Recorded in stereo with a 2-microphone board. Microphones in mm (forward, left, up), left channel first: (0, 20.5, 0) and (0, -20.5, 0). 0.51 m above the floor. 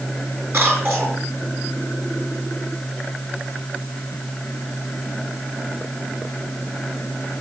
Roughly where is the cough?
Right.